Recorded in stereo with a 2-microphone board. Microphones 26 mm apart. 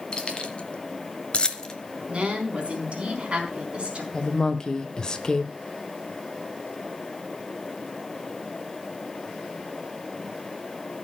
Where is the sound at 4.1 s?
25° left (ahead or behind), 1.0 m.